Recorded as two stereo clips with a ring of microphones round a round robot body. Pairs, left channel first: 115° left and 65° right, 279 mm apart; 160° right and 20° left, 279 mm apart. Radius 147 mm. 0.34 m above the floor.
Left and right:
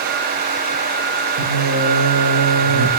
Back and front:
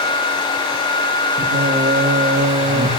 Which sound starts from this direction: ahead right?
Singing, at 1.4 s.